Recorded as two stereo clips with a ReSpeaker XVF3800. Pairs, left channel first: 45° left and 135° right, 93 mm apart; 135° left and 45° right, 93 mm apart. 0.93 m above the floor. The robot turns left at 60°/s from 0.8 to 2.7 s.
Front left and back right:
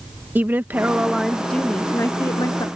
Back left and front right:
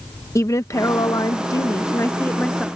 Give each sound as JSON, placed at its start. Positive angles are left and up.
{"t": 0.3, "sound": "a woman speaking", "azimuth_deg": 165}